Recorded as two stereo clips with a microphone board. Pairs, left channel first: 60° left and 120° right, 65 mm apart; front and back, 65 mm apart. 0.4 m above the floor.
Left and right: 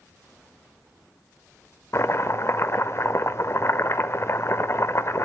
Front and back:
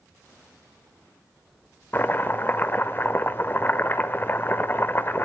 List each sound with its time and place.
1.9 s chopping: 40° left, 0.6 m